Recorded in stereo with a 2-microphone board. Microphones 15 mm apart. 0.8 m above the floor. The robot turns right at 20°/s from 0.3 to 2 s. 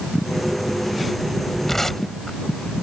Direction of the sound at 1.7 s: 20° left (ahead or behind).